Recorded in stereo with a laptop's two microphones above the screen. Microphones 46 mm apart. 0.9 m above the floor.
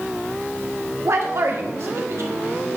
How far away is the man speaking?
About 1.6 m.